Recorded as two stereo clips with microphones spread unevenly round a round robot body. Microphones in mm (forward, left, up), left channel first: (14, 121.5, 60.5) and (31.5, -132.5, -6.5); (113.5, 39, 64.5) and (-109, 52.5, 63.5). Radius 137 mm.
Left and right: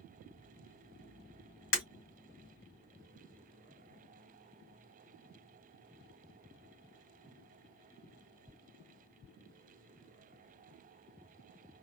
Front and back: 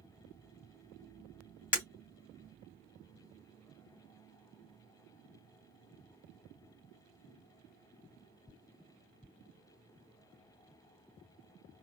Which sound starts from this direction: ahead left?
Breaking glass, at 1.7 s.